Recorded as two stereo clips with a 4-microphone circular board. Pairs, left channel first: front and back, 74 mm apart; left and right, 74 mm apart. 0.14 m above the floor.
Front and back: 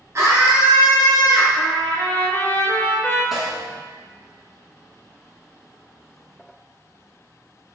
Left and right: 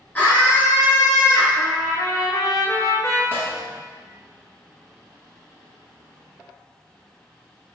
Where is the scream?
150° left, 1.6 m; by 1.5 s 80° left, 1.6 m.